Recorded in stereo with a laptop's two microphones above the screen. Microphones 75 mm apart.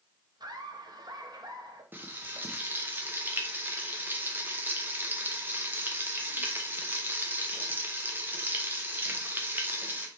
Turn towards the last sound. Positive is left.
turn(degrees=-25)  # may be behind; listen again after turning